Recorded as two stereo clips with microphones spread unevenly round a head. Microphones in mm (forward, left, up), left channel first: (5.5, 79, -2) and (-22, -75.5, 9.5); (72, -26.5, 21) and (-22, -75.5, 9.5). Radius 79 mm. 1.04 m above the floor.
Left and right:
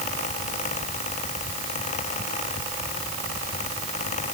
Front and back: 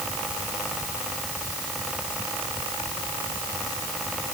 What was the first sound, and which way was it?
Only background noise.